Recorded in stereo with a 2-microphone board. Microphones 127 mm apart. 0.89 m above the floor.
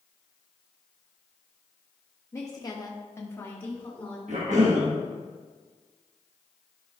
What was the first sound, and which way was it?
A woman speaking, 20° left (ahead or behind).